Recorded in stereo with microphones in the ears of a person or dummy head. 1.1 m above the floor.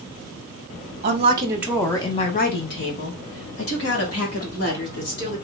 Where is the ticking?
No ticking in this recording.